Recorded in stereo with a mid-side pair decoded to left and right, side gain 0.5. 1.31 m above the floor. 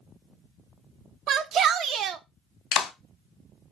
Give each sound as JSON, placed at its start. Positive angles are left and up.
{"t": 1.3, "sound": "a shout", "azimuth_deg": -60, "distance_m": 0.5}
{"t": 2.7, "sound": "a clap", "azimuth_deg": 70, "distance_m": 0.6}